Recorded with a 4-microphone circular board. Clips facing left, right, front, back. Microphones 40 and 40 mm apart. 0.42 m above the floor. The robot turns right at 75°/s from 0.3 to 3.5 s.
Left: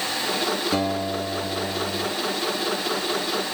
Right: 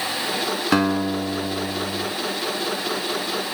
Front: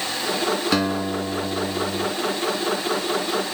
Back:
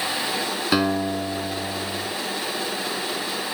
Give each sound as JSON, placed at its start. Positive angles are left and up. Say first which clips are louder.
{"t": 0.7, "sound": "a guitar", "louder": "right 4 dB, back 1 dB", "azimuth_deg": -100, "distance_m": 2.5}